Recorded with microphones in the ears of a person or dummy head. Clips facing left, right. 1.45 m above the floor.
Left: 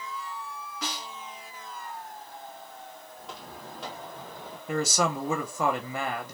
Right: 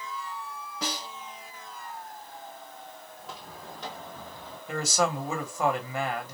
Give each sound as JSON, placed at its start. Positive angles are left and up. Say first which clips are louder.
{"t": 0.8, "sound": "a snare drum", "louder": "right 3 dB", "side_deg": -30, "distance_m": 1.1}
{"t": 3.2, "sound": "footsteps", "louder": "left 2 dB", "side_deg": 0, "distance_m": 2.5}
{"t": 4.7, "sound": "a man speaking", "louder": "left 1 dB", "side_deg": 75, "distance_m": 1.3}